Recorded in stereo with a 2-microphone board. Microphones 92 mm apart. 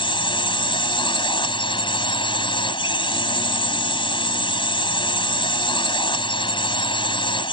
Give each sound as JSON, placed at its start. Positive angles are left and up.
{"t": 0.0, "sound": "a drone", "side_deg": 70}